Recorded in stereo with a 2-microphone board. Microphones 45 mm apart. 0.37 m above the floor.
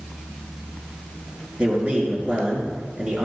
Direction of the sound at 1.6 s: 30° right (ahead or behind).